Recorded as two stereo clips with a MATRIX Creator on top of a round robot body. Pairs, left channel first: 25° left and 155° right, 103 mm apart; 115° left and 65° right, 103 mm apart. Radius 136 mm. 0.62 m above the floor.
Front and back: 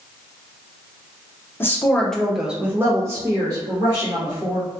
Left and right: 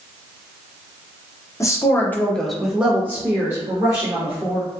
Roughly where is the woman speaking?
Left.